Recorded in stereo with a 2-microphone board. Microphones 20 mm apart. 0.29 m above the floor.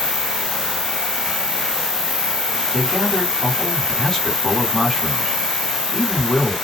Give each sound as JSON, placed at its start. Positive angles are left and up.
{"t": 0.0, "sound": "an insect", "side_deg": 60, "distance_m": 1.5}
{"t": 2.7, "sound": "a man speaking", "side_deg": 25, "distance_m": 2.0}